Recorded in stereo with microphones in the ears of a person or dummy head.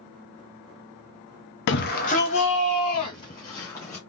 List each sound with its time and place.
1.7 s a shout: 60° left (ahead or behind), 0.7 m; by 4.0 s 15° left (ahead or behind), 1.7 m